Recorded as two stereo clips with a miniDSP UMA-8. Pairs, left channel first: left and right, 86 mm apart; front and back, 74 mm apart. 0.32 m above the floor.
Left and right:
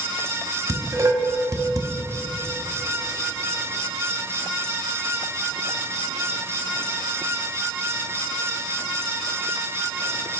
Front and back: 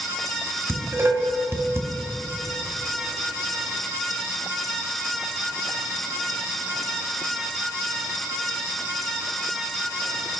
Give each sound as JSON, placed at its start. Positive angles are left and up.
{"t": 0.7, "sound": "dishes clattering", "azimuth_deg": -135, "distance_m": 1.1}